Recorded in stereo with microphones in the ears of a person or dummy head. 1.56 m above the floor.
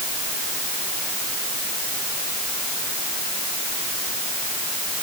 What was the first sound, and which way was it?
Only background noise.